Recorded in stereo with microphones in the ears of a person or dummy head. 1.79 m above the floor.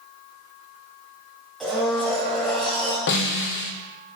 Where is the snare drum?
60° left (ahead or behind), 0.8 m.